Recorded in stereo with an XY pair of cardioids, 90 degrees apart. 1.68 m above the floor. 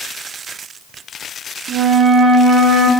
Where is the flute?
65° right, 1.3 m.